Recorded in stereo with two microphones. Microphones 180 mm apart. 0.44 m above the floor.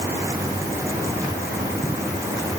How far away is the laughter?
No laughter in this recording.